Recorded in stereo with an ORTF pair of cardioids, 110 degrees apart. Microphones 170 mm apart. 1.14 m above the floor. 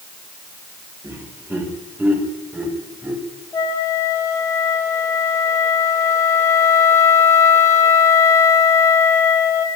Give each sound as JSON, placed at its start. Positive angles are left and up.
{"t": 1.0, "sound": "laughter", "azimuth_deg": -15, "distance_m": 5.0}
{"t": 3.5, "sound": "a flute", "azimuth_deg": 20, "distance_m": 2.5}